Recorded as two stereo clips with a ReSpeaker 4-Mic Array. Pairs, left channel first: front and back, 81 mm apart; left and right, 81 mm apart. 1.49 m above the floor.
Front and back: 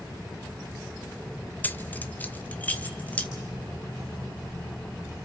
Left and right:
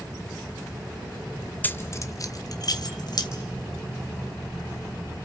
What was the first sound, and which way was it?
Keys jangling, 50° left.